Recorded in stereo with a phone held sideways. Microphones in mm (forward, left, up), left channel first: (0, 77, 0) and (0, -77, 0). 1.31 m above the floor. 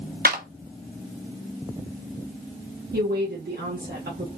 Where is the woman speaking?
85° right, 0.9 m.